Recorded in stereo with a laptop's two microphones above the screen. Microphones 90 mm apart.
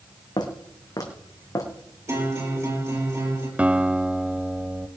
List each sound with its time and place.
0.4 s footsteps: 50° left (ahead or behind), 2.5 m; by 1.7 s 40° left (ahead or behind), 2.5 m
2.1 s a guitar: 30° right (ahead or behind), 4.5 m
3.6 s a guitar: 15° right (ahead or behind), 0.8 m